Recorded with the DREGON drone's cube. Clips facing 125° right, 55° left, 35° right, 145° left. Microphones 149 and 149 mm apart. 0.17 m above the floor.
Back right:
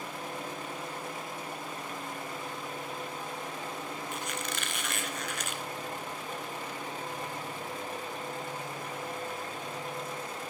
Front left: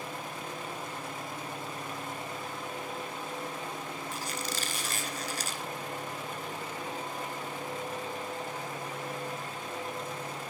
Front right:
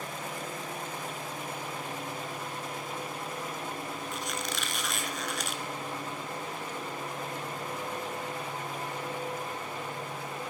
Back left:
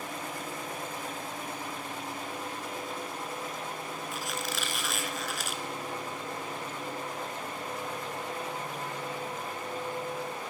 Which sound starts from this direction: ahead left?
A squeak, at 4.1 s.